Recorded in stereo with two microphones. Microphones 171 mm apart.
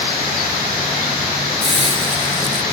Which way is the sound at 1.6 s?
35° right (ahead or behind).